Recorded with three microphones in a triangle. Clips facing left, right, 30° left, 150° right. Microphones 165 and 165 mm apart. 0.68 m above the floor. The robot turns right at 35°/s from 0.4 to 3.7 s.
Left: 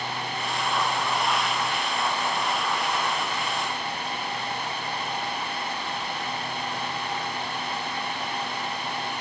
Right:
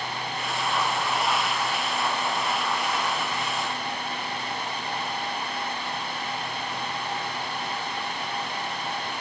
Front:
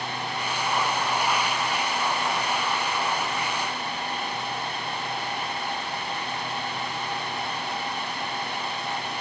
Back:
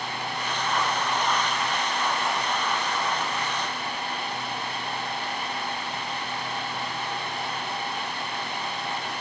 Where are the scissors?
I don't hear scissors.